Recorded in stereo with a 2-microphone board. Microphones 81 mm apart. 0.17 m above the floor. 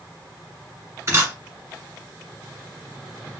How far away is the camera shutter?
About 1.4 m.